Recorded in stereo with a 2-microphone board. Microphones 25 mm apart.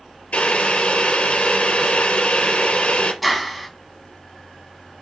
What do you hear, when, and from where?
0.3 s boiling: 55° left (ahead or behind), 3 m
3.2 s a clap: 5° left (ahead or behind), 1.3 m